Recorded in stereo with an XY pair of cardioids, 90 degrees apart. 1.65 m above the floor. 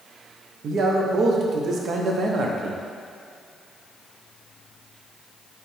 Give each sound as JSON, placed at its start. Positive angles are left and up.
{"t": 0.6, "sound": "a man speaking", "azimuth_deg": -65, "distance_m": 0.7}